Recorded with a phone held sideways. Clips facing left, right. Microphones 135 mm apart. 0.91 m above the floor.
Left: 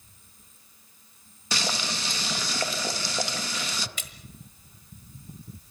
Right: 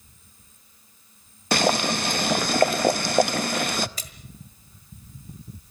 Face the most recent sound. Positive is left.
turn(degrees=-35)  # may be behind; listen again after turning